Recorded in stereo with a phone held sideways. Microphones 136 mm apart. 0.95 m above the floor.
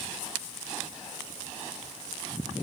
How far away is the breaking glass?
No breaking glass in this recording.